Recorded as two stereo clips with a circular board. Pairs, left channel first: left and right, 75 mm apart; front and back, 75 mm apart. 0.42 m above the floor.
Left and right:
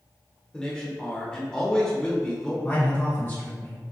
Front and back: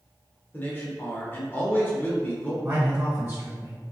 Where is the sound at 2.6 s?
135° left, 2.0 m.